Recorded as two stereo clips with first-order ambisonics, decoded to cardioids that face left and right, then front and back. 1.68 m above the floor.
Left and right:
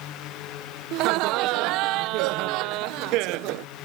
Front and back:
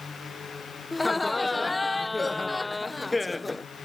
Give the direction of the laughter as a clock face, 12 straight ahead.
3 o'clock.